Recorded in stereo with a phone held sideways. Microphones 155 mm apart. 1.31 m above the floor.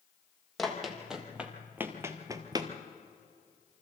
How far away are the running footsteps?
About 2.5 m.